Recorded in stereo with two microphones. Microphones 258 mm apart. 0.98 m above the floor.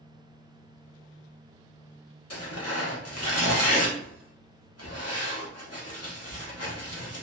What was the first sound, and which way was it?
Tearing paper, 70° left (ahead or behind).